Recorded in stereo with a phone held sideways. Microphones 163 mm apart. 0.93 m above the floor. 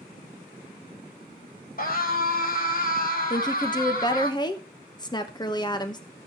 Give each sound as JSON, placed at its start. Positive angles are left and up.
{"t": 1.8, "sound": "a scream", "side_deg": 60, "distance_m": 5.0}
{"t": 3.3, "sound": "a woman speaking", "side_deg": 25, "distance_m": 1.0}